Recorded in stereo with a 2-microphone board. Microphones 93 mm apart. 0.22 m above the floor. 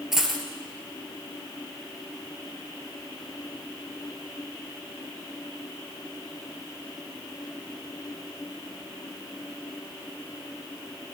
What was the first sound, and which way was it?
A dropped coin, 5° right (ahead or behind).